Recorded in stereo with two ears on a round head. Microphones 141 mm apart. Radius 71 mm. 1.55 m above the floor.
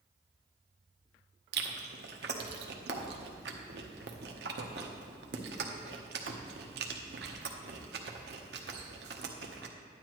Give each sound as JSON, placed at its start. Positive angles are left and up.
{"t": 1.5, "sound": "chewing", "side_deg": -75, "distance_m": 1.0}